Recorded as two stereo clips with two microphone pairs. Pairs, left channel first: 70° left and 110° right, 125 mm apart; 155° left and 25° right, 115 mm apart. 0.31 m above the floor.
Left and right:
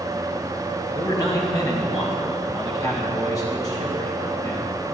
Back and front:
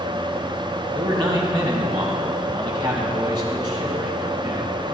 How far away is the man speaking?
About 2 m.